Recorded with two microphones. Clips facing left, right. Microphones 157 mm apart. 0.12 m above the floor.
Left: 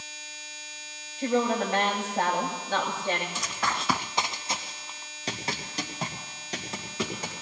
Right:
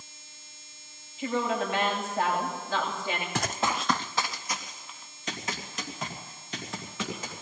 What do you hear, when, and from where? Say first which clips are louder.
1.2 s a woman speaking: left 3 dB; 45° left (ahead or behind), 8.5 m
3.4 s running footsteps: right 3 dB; 75° right (ahead or behind), 0.5 m; by 7.3 s 35° left (ahead or behind), 6 m